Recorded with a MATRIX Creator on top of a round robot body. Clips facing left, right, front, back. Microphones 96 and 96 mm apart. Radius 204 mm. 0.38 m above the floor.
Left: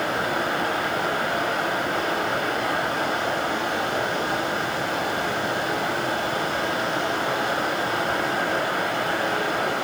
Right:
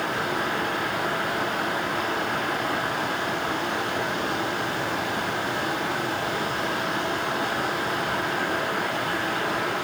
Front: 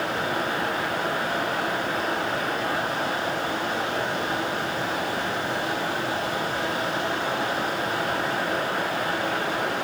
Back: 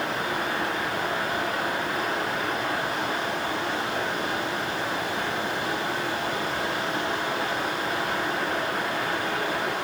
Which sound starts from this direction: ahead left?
Running water, at 0.0 s.